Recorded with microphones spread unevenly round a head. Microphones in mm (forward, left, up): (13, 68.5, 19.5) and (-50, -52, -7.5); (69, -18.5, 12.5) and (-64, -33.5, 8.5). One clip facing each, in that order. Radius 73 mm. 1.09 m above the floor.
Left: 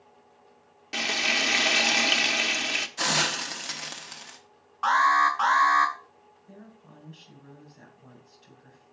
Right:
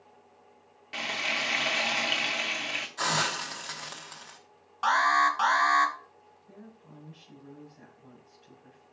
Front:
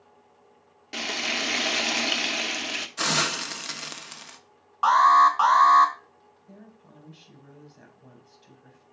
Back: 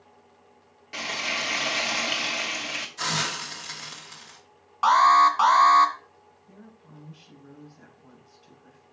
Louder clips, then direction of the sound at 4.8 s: Left 3 dB, even; 100° right.